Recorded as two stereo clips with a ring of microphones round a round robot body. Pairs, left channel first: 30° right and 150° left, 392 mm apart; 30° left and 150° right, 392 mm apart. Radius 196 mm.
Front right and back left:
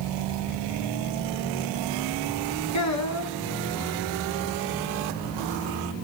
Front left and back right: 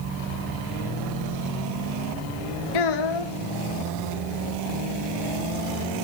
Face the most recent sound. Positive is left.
turn(degrees=15)